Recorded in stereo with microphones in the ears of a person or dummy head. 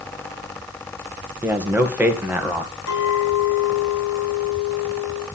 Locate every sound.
1.4 s a man speaking: 10° right (ahead or behind), 2 m
2.9 s a clink: 75° left (ahead or behind), 4.5 m